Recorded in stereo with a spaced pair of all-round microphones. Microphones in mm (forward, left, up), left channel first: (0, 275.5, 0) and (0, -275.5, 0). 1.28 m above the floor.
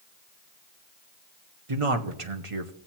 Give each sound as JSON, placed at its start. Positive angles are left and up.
{"t": 1.7, "sound": "a man speaking", "side_deg": -65, "distance_m": 1.0}